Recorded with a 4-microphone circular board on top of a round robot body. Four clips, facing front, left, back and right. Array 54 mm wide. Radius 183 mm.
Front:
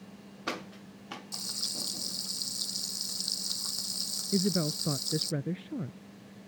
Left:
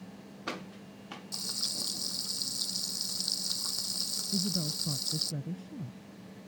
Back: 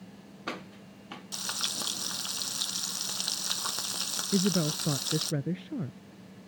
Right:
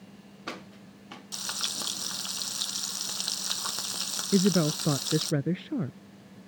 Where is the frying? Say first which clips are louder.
Right 8 dB, back 5 dB; 140° right.